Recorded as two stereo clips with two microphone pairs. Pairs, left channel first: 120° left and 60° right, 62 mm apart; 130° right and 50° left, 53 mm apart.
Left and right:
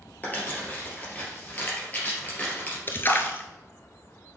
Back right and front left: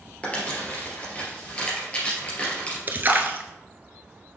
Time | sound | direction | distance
0.2 | crumpling | 175° left | 3 m
2.9 | a splash | 85° left | 0.8 m